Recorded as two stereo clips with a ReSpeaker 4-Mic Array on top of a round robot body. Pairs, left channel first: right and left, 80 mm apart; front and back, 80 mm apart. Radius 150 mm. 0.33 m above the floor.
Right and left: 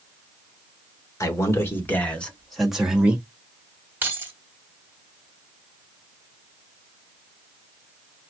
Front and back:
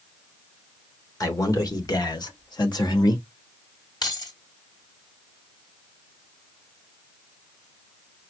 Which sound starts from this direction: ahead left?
Keys jangling, at 4.0 s.